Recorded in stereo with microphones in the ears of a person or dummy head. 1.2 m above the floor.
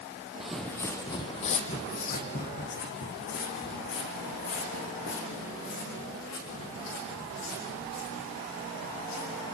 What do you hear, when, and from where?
0.4 s footsteps: 5° right (ahead or behind), 1.6 m; by 9.4 s 75° left (ahead or behind), 10 m